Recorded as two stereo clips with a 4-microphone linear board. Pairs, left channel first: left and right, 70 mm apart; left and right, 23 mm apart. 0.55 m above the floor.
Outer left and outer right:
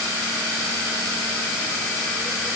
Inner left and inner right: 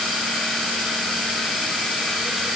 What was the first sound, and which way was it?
Only background noise.